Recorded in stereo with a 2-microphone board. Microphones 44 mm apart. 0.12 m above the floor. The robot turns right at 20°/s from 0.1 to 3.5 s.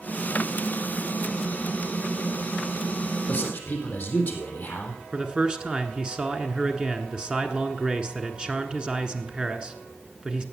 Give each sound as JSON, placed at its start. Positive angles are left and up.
{"t": 3.3, "sound": "a man speaking", "side_deg": 30, "distance_m": 3.5}
{"t": 5.1, "sound": "a man speaking", "side_deg": -20, "distance_m": 1.1}